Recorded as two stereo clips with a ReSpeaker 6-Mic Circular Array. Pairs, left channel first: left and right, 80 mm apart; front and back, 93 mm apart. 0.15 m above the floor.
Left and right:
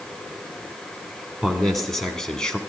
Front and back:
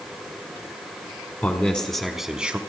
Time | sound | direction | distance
1.4 | a man speaking | straight ahead | 1.0 m